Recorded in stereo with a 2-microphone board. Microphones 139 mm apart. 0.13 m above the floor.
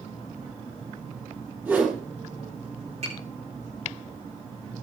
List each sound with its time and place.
1.6 s a whoosh: 15° right (ahead or behind), 4.5 m
3.0 s tapping: 55° right (ahead or behind), 8 m